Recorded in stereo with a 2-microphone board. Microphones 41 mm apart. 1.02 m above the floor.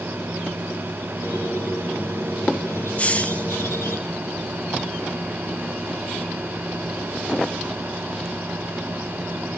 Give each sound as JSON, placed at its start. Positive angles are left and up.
{"t": 1.2, "sound": "a squeak", "side_deg": 80, "distance_m": 6.0}
{"t": 3.0, "sound": "a hiss", "side_deg": 35, "distance_m": 0.9}